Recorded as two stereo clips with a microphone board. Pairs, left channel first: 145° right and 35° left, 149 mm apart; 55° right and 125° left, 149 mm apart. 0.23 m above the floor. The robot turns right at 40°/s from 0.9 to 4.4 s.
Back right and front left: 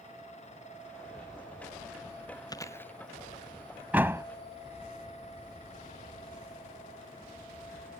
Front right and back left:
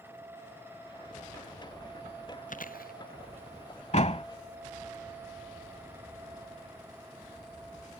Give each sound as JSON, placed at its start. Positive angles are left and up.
{"t": 2.5, "sound": "chewing", "azimuth_deg": -85}
{"t": 3.9, "sound": "a door slam", "azimuth_deg": -40}